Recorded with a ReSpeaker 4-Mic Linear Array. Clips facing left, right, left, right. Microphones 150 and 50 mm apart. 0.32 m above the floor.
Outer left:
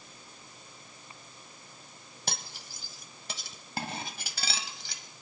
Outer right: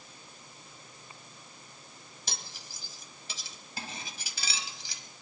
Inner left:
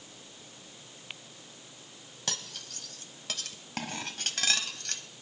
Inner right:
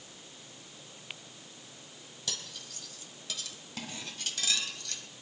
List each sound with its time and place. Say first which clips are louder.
2.3 s cutlery clinking: outer left 5 dB, inner left 3 dB; 60° left (ahead or behind), 1.3 m